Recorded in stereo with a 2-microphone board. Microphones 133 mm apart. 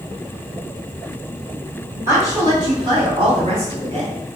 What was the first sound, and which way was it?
A woman speaking, 20° right (ahead or behind).